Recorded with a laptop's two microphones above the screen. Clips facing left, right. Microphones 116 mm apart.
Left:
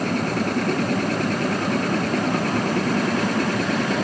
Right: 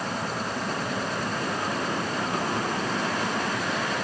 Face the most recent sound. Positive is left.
turn(degrees=80)